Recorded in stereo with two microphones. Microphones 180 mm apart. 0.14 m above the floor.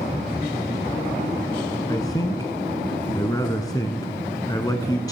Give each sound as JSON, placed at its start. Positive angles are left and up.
{"t": 1.9, "sound": "a man speaking", "side_deg": 20, "distance_m": 1.0}